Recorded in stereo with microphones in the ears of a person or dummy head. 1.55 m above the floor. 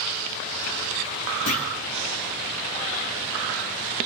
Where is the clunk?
50° left (ahead or behind), 2 m.